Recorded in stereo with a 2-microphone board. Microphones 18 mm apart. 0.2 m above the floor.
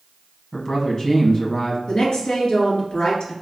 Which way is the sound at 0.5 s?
30° left (ahead or behind).